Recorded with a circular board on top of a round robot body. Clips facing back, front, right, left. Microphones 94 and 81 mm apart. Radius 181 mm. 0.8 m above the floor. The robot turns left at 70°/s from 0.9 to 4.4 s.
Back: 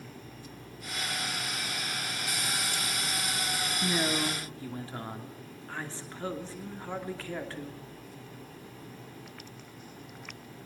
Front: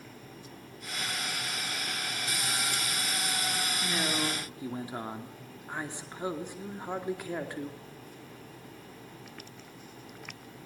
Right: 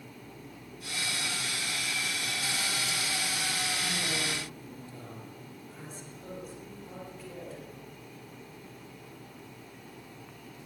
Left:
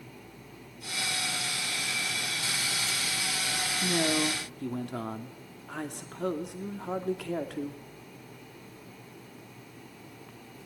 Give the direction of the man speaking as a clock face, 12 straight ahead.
8 o'clock.